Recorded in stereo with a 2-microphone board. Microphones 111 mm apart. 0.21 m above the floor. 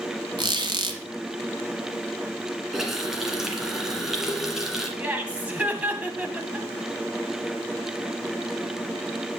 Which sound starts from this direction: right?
A squeak, at 0.4 s.